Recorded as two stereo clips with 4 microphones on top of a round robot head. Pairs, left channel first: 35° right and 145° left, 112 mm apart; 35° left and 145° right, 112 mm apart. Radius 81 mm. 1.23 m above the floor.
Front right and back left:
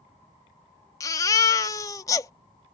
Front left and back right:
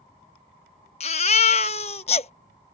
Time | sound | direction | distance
1.0 | a baby crying | 20° left | ?